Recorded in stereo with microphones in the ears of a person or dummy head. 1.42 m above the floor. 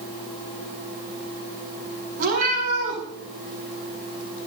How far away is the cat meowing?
About 7.5 m.